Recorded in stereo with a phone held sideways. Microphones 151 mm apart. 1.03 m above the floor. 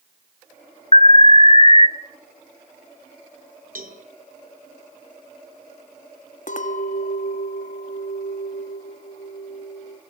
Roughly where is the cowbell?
Right.